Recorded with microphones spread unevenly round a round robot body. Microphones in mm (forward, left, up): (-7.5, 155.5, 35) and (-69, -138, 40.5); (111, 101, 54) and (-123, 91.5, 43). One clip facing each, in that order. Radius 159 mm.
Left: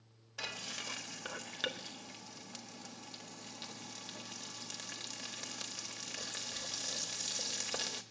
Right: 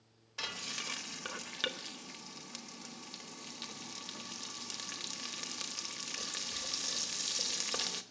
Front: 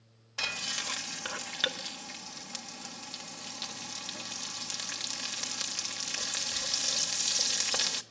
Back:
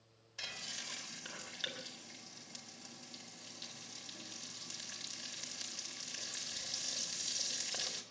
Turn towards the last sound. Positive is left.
turn(degrees=-20)